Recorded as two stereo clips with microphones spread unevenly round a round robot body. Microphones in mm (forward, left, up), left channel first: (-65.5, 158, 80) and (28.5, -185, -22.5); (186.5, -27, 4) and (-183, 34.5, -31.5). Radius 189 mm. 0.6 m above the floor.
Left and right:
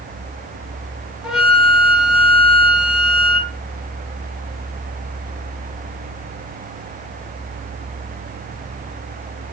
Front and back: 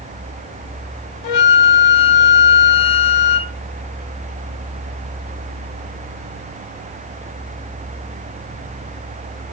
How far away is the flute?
About 4.5 m.